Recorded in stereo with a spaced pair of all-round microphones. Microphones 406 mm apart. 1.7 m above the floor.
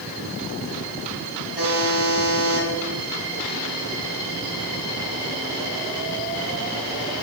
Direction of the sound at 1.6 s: 70° left (ahead or behind).